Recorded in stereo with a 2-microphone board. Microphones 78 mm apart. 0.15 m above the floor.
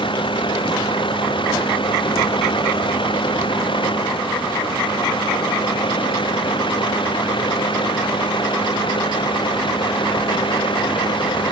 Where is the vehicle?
90° left; by 11.5 s 80° left.